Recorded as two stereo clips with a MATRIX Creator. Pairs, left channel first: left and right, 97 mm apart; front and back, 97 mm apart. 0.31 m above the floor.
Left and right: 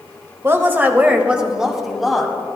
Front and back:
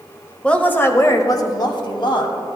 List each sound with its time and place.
0.4 s a woman speaking: 70° right, 0.9 m; by 2.4 s straight ahead, 1.6 m